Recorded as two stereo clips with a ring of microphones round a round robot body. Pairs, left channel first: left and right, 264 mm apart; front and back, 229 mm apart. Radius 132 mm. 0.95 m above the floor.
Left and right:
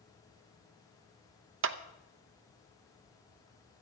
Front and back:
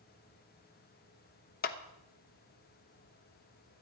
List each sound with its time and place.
1.6 s a clap: 50° right, 0.7 m